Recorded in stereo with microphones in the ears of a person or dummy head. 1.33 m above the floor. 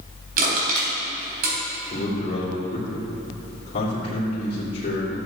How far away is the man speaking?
About 3 m.